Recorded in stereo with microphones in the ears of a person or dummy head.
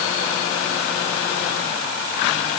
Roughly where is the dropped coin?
I don't hear a dropped coin.